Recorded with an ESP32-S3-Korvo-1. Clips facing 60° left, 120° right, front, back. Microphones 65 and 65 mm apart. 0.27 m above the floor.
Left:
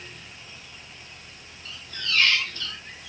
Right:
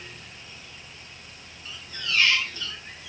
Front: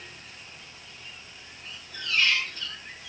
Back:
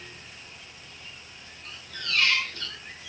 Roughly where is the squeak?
Behind.